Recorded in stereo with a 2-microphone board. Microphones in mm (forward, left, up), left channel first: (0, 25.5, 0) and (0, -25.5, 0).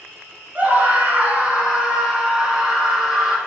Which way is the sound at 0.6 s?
30° right (ahead or behind).